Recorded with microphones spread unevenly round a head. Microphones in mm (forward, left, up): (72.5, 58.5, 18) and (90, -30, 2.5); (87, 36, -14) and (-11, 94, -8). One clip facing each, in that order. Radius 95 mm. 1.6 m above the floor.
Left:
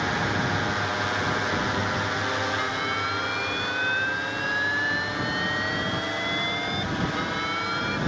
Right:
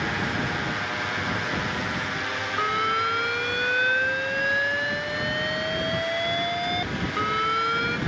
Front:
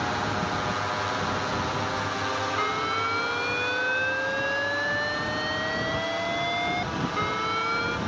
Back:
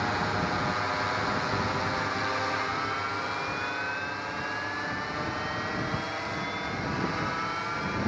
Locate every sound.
0.0 s a drone: 45° left
2.6 s an alarm: 40° right